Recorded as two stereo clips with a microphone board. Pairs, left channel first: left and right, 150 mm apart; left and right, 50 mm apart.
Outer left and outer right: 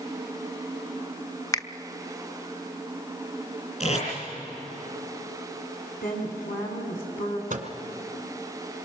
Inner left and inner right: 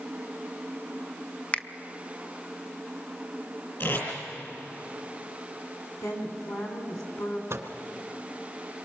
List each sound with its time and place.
1.5 s a finger snap: 25° left (ahead or behind), 0.6 m
3.8 s tape being pulled: 50° left (ahead or behind), 7 m
6.0 s a woman speaking: 70° left (ahead or behind), 5.5 m
7.5 s a microwave: 60° right (ahead or behind), 2.0 m